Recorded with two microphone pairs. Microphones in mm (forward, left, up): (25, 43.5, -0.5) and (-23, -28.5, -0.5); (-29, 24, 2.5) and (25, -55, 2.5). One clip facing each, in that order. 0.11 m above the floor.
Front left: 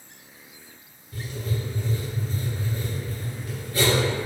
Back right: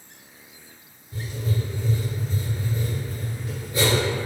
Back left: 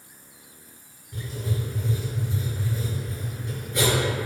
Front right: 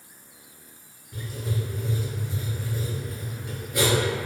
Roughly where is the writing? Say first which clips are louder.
Back right 2 dB, back left 1 dB; behind right.